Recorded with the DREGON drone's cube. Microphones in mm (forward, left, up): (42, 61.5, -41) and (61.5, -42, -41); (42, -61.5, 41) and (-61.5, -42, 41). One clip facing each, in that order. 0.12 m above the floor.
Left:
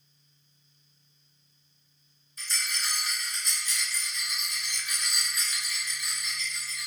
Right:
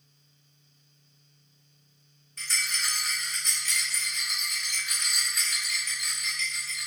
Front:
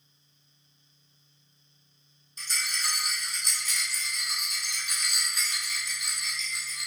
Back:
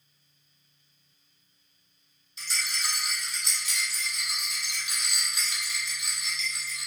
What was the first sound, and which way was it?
A rattle, 60° right.